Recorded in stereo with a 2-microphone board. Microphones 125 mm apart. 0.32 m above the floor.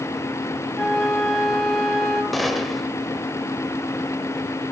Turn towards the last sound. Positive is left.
turn(degrees=0)  # may be behind; listen again after turning